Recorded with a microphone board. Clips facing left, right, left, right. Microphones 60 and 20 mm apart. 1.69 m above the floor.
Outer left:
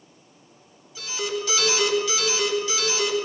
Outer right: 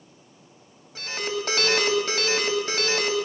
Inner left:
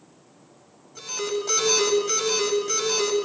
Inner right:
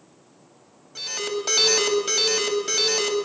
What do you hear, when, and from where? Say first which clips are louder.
0.9 s an alarm: outer left 1 dB, even; 50° right (ahead or behind), 8.5 m